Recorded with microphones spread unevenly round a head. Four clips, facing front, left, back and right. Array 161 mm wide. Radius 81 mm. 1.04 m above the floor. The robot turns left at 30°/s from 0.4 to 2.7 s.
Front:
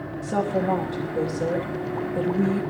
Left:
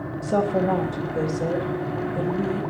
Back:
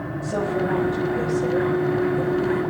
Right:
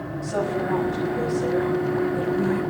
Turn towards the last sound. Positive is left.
turn(degrees=10)